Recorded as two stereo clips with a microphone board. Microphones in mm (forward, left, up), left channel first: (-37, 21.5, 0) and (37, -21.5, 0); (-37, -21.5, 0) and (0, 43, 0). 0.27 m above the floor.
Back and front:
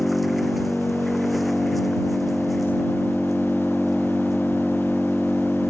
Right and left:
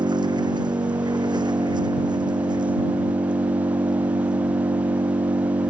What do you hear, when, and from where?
0.0 s an engine running: 60° left